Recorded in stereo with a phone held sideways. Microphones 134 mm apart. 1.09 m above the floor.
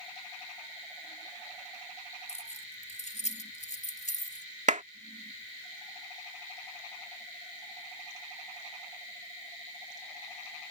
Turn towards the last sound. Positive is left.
turn(degrees=-65)  # may be behind; listen again after turning